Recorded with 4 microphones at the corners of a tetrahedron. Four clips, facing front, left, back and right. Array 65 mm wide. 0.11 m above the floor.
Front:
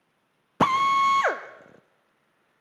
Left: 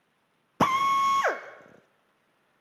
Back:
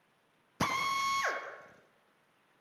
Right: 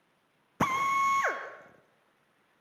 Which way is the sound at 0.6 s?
30° left.